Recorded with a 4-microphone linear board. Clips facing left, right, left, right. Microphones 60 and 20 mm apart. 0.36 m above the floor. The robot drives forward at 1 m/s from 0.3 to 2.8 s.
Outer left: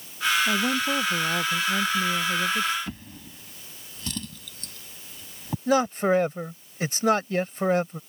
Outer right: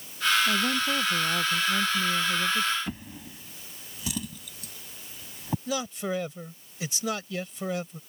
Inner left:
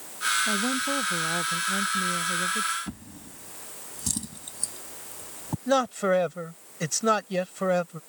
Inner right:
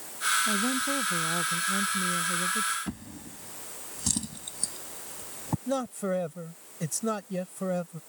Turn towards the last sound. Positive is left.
turn(degrees=40)  # may be behind; listen again after turning